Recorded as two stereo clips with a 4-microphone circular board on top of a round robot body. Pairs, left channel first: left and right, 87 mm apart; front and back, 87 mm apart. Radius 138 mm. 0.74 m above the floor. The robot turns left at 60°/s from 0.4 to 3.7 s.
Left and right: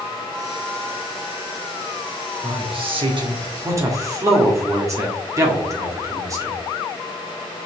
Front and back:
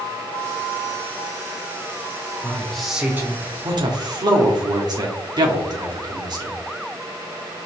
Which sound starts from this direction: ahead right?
A man speaking, at 2.4 s.